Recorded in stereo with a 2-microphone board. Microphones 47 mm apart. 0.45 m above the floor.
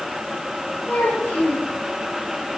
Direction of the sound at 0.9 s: 40° left (ahead or behind).